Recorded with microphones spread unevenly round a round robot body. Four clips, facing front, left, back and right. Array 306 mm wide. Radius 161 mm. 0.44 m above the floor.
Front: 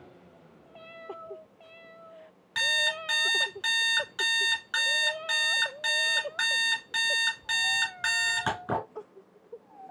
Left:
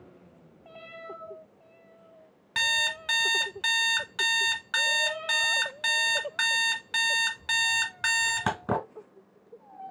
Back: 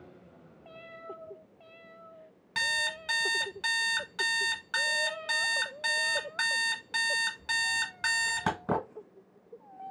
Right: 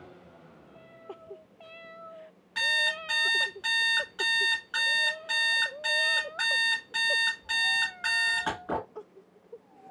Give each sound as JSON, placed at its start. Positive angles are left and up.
{"t": 2.5, "sound": "an alarm clock", "azimuth_deg": 110, "distance_m": 1.8}